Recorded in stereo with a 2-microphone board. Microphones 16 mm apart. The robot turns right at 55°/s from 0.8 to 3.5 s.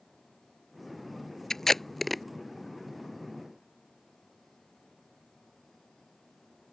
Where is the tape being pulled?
25° left (ahead or behind); by 2.2 s 5° right (ahead or behind).